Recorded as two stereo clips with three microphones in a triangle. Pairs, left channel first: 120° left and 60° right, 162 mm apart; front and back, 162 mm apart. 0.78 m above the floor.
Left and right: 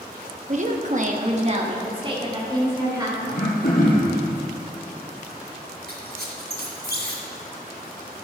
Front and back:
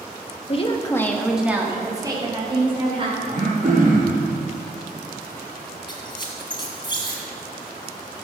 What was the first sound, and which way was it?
A woman speaking, 40° right.